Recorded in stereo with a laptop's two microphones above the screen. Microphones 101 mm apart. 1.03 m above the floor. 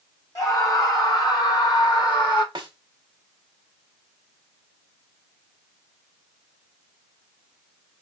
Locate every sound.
0.3 s a scream: 40° left (ahead or behind), 3.5 m; by 2.5 s 50° left (ahead or behind), 2.5 m
2.5 s a snare drum: 50° right (ahead or behind), 1.0 m